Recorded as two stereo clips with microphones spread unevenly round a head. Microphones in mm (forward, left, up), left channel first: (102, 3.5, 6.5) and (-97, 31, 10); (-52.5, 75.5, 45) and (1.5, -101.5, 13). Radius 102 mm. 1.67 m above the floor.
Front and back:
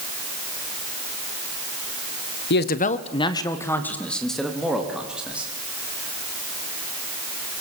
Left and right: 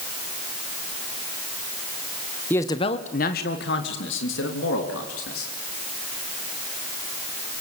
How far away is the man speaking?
About 1.5 m.